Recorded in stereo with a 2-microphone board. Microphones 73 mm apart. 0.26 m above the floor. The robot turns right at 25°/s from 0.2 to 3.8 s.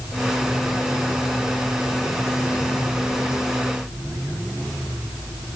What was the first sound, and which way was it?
Only background noise.